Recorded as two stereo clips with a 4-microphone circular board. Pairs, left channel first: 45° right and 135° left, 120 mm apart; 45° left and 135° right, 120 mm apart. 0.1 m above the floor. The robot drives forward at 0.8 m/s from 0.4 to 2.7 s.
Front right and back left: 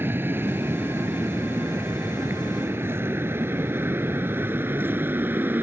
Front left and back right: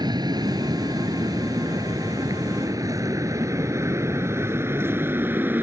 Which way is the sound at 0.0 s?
165° right.